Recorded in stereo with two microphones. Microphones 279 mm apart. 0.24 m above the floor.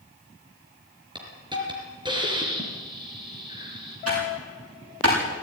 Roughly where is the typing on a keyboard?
Right.